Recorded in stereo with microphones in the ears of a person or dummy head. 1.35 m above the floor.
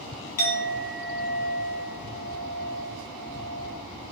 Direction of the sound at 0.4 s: 45° left (ahead or behind).